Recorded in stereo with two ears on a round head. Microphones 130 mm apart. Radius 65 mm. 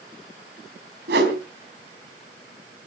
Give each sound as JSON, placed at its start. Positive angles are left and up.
{"t": 1.1, "sound": "a whoosh", "side_deg": -90, "distance_m": 3.0}